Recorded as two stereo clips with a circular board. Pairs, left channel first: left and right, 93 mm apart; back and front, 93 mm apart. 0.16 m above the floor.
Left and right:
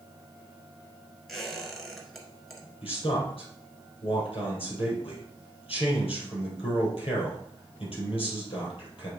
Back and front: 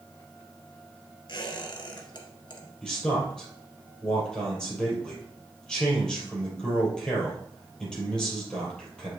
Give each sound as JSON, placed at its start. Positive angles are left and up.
{"t": 1.3, "sound": "a squeak", "azimuth_deg": 180, "distance_m": 1.5}
{"t": 2.8, "sound": "a man speaking", "azimuth_deg": 100, "distance_m": 4.0}